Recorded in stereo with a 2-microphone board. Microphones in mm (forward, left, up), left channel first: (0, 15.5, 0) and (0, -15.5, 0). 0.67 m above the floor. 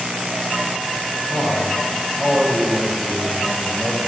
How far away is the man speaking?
About 5 m.